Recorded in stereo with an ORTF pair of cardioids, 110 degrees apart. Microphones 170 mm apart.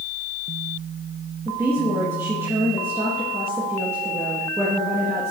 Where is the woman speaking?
15° right, 1.3 m.